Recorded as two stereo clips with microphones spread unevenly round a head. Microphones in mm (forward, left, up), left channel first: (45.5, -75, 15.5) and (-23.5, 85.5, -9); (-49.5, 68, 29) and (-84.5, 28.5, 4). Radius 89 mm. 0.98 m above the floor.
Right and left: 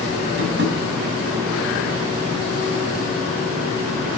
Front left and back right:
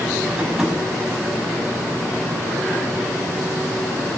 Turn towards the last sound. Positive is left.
turn(degrees=145)